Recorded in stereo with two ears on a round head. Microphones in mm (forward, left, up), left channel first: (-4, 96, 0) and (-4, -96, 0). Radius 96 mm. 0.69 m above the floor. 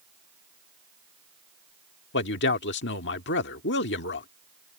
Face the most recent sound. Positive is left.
turn(degrees=55)  # may be behind; listen again after turning